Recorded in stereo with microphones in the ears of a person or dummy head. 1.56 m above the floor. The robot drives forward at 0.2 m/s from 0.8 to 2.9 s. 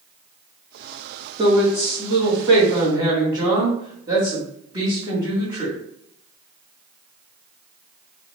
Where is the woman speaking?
25° right (ahead or behind), 1.8 m.